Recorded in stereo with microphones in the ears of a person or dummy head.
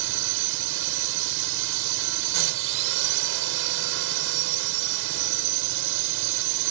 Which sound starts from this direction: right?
A drone, at 0.0 s.